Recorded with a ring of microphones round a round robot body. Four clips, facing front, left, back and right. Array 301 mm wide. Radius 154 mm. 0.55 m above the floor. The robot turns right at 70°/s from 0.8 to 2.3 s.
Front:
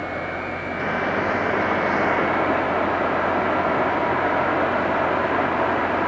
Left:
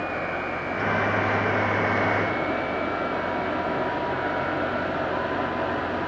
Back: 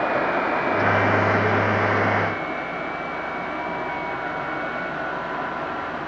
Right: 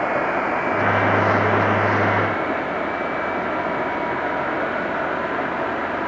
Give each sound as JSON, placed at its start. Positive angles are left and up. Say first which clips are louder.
{"t": 0.0, "sound": "running water", "louder": "right 8 dB, back 6 dB", "azimuth_deg": -125, "distance_m": 1.1}